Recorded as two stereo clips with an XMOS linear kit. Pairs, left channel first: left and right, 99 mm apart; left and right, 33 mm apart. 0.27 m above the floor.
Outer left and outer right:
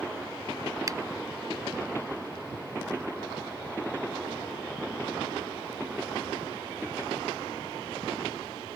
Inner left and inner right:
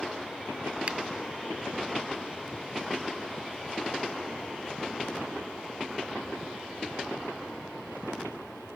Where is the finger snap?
40° right (ahead or behind).